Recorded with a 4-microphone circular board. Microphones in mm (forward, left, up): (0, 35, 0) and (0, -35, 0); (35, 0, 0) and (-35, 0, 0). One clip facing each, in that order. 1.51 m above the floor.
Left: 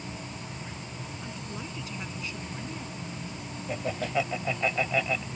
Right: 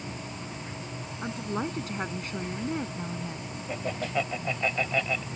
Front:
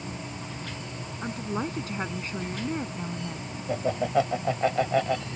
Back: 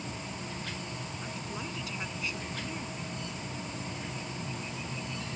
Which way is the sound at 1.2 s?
50° right.